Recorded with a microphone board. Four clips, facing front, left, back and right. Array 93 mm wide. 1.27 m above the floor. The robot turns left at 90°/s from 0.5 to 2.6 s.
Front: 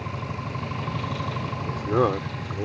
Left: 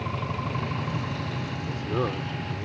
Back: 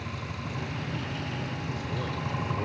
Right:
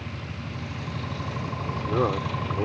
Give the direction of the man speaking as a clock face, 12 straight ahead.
11 o'clock.